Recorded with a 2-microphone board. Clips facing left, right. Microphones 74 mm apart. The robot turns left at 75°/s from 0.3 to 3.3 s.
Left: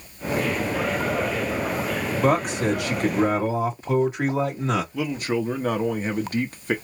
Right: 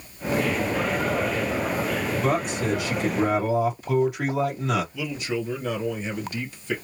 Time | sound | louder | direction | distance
2.2 | a man speaking | left 6 dB | 115° left | 1.8 m
4.9 | a man speaking | left 4 dB | 50° left (ahead or behind) | 1.0 m